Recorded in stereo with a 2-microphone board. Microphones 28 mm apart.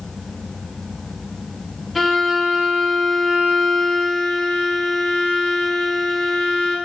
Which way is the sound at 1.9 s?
5° right (ahead or behind).